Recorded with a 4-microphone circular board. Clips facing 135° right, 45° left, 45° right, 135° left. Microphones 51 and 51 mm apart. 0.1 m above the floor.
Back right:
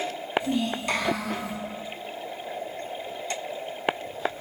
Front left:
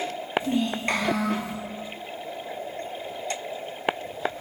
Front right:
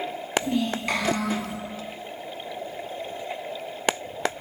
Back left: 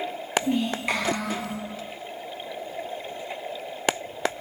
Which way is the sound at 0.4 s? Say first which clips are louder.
Front left 1 dB, back left 1 dB; 75° left.